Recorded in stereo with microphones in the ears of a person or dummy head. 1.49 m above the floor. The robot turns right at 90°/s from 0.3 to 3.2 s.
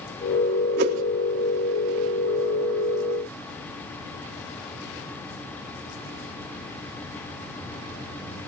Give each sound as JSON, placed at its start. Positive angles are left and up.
{"t": 0.8, "sound": "a whoosh", "side_deg": -55, "distance_m": 4.0}